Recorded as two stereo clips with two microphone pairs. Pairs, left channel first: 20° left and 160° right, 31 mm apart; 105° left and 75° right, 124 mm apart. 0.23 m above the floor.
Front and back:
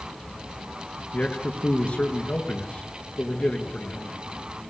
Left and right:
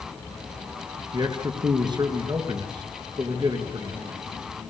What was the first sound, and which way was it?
A man speaking, 25° right.